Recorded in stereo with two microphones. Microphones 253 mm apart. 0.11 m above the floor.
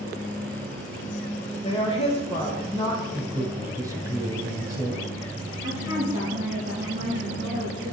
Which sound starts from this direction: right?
A woman speaking, at 5.6 s.